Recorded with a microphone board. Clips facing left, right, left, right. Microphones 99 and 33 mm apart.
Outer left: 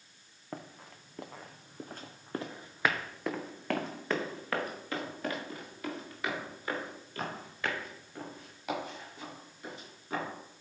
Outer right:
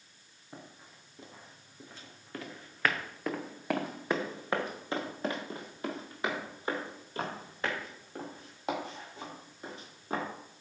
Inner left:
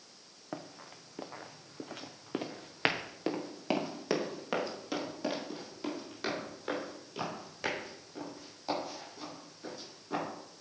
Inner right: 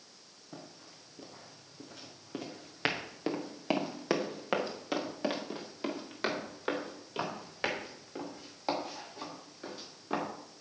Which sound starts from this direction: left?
Running footsteps, at 0.5 s.